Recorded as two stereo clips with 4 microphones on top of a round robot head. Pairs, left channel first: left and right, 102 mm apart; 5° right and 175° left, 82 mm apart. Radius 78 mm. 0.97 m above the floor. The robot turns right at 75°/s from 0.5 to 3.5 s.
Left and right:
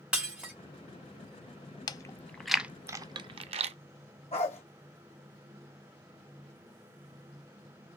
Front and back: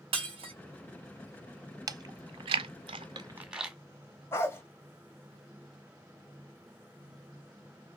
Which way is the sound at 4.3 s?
50° left.